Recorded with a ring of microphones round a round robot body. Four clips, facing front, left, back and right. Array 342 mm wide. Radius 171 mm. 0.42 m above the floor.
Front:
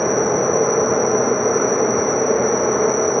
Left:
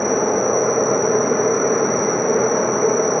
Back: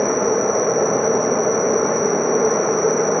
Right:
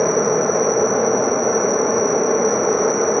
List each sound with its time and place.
0.0 s an insect: 170° right, 1.3 m